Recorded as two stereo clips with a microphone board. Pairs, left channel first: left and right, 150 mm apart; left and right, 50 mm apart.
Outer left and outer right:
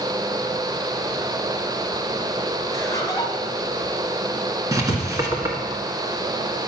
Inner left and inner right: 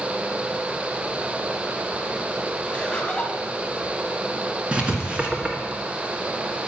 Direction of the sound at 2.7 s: 25° left (ahead or behind).